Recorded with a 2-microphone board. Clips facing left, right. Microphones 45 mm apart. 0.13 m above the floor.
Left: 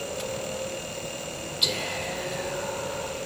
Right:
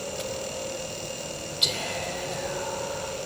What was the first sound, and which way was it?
Whispering, centre (ahead or behind).